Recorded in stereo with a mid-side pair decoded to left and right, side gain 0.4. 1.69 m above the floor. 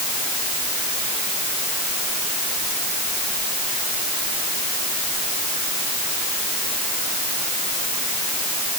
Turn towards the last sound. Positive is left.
No sound to turn to.